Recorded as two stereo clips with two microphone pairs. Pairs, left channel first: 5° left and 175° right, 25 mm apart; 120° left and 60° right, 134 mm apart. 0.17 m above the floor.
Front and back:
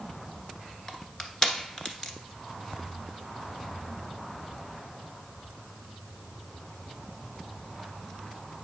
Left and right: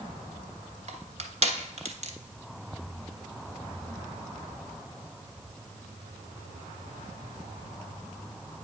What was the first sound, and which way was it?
Crushing, 50° right.